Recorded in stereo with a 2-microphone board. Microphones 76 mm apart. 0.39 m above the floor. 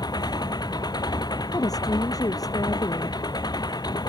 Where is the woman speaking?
55° left (ahead or behind).